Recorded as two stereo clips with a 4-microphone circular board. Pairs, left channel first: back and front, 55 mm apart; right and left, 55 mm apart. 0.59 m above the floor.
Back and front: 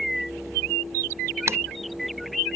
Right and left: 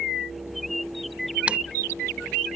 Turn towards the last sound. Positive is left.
turn(degrees=25)